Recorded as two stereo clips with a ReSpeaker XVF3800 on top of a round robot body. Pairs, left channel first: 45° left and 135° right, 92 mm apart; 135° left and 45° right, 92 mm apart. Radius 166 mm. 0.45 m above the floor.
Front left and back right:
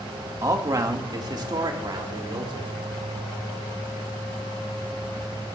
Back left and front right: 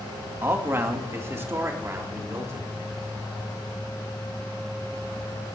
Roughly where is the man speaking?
Right.